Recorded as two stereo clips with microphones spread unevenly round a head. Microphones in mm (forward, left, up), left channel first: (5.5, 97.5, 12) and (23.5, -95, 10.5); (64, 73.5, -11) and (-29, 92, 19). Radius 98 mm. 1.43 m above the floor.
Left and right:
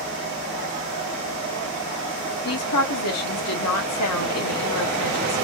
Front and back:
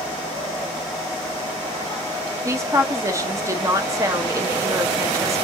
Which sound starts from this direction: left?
A woman speaking, at 2.5 s.